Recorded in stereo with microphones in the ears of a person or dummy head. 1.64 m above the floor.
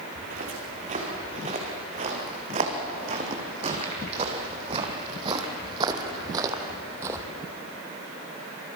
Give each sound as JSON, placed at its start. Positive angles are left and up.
{"t": 0.1, "sound": "footsteps", "side_deg": -45, "distance_m": 6.5}